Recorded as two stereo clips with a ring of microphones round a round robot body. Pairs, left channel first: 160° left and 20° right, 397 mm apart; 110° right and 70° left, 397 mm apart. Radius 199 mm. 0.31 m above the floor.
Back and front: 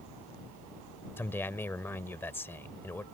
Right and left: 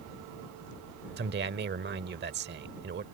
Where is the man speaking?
80° left.